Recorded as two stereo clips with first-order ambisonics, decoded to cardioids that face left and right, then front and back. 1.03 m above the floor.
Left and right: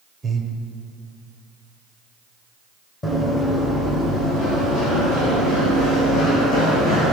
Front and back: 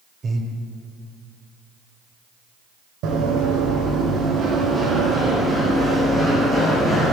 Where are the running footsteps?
155° left, 2 m; by 7.1 s 75° left, 3 m.